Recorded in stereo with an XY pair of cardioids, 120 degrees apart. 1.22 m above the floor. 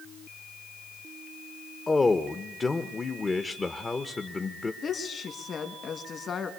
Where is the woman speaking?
40° left, 2 m.